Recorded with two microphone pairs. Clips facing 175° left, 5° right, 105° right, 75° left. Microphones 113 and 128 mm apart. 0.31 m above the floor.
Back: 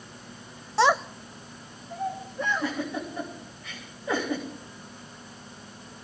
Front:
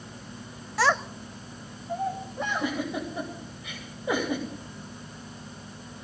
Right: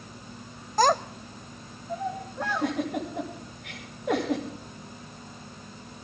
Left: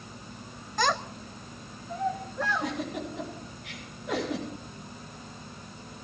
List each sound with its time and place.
0.8 s a child speaking: 135° right, 0.6 m; by 2.7 s 35° right, 3 m
2.4 s a giggle: 80° right, 10 m